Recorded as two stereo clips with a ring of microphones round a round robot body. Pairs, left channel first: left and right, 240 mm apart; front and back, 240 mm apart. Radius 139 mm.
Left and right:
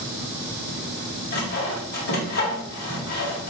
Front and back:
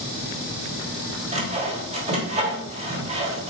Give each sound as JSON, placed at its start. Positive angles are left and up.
{"t": 1.3, "sound": "sawing", "azimuth_deg": 125, "distance_m": 1.5}